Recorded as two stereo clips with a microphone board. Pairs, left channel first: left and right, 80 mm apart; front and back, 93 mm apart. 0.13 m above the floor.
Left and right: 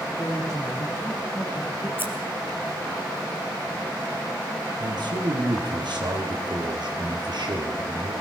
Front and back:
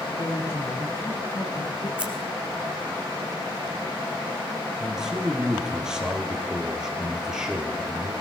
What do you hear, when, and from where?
0.1 s a woman speaking: 45° left, 6 m; by 1.9 s 25° left, 5.5 m
2.0 s scissors: 115° right, 1.8 m
4.8 s a man speaking: 100° right, 3 m